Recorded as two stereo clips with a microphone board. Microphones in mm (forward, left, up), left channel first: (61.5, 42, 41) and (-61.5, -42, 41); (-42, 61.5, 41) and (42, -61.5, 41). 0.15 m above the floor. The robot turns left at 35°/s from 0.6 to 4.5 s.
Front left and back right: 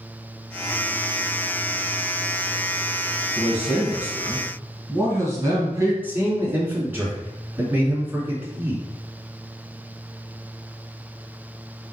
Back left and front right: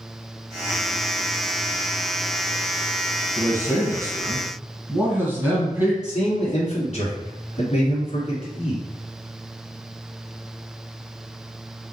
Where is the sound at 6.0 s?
140° left, 2.5 m.